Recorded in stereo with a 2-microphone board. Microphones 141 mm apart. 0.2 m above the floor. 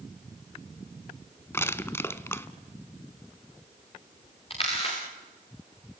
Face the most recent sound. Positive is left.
turn(degrees=40)  # may be behind; listen again after turning